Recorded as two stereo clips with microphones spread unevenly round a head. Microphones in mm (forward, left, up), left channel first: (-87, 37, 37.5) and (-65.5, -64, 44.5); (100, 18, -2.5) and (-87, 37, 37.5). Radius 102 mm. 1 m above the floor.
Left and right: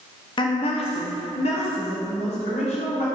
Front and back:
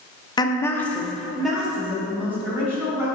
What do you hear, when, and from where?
0.4 s a woman speaking: 55° left, 0.8 m; by 3.1 s 95° left, 3 m